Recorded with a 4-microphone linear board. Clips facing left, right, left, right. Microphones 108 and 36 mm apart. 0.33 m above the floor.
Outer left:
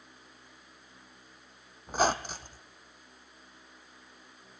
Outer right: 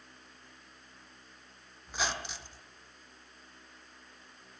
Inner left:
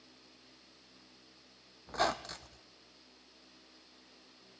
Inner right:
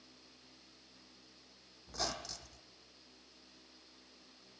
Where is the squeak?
40° left (ahead or behind), 0.7 m.